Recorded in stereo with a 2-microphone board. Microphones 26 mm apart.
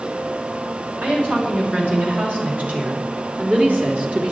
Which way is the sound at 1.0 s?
70° right (ahead or behind).